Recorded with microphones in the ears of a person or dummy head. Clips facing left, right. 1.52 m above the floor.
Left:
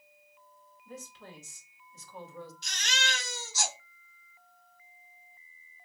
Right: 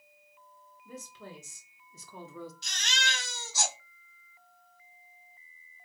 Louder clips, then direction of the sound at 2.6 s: Left 3 dB; 50° right (ahead or behind).